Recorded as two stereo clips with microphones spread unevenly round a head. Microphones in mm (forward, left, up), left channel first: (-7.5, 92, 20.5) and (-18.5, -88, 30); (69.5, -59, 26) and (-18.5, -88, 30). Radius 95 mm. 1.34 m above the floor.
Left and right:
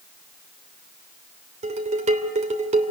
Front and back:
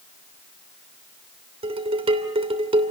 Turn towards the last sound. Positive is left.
turn(degrees=-145)